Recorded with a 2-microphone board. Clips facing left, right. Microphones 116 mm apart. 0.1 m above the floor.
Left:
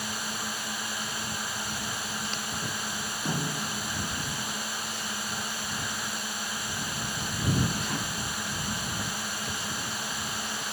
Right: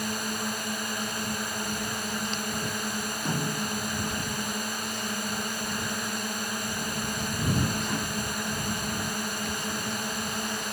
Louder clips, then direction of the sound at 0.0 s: Right 4 dB; 50° right (ahead or behind).